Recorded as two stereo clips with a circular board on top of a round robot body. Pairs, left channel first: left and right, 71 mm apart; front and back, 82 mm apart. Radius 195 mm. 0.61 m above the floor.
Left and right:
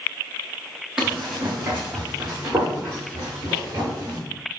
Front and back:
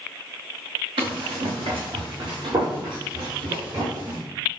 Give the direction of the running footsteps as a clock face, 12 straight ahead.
6 o'clock.